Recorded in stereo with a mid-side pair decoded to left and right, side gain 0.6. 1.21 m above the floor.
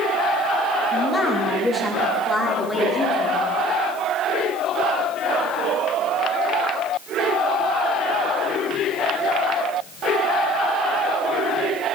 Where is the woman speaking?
25° left, 1.9 m; by 3.4 s 15° left, 4 m.